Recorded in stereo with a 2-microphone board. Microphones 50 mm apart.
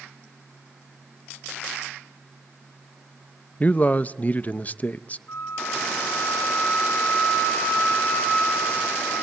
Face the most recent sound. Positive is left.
turn(degrees=45)  # may be behind; listen again after turning